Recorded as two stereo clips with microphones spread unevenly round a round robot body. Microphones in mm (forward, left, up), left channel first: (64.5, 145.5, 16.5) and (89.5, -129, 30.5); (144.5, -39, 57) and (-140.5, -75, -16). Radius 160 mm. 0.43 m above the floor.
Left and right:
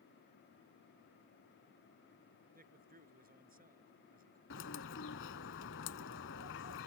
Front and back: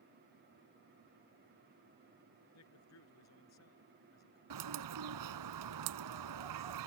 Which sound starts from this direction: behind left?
A bird, at 4.5 s.